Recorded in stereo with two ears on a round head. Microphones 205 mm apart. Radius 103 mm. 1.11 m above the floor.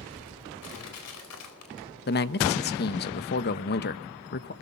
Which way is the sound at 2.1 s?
45° left (ahead or behind).